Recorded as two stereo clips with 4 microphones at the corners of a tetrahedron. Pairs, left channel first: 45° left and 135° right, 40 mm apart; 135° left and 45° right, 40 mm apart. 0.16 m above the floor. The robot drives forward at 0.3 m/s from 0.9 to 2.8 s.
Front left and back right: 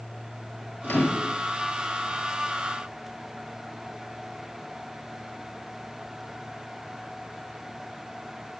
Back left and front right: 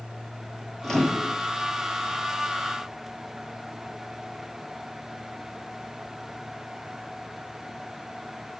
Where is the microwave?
55° left, 2.5 m; by 1.4 s 60° left, 2.5 m.